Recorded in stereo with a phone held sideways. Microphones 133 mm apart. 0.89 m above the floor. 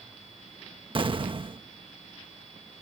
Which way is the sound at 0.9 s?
40° right (ahead or behind).